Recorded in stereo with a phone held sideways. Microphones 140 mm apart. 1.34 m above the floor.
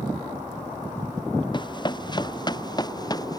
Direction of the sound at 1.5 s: 35° left (ahead or behind).